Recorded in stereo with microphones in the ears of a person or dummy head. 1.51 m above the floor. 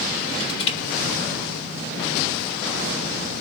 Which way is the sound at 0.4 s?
30° left (ahead or behind).